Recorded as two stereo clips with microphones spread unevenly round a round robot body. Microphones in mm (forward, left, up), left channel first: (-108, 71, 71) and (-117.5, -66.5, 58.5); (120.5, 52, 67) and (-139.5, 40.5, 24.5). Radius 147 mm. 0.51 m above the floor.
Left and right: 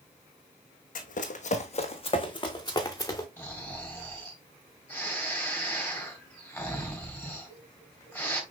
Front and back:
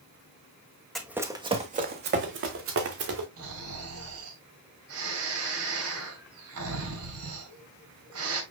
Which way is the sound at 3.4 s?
165° left.